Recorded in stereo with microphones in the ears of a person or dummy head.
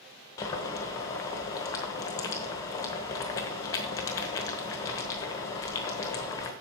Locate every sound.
0.4 s boiling: 20° left (ahead or behind), 1.2 m